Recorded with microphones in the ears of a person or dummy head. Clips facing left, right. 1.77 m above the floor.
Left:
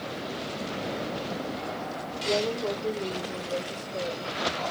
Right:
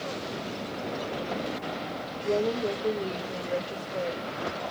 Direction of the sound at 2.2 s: 20° right (ahead or behind).